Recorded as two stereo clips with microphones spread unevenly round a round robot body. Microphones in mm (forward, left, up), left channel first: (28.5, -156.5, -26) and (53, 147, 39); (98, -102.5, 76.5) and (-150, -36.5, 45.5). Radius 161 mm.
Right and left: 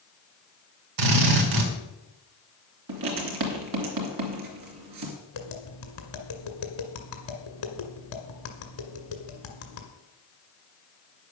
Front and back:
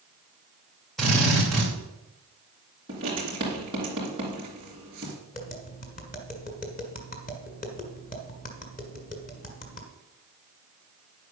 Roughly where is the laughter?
No laughter in this recording.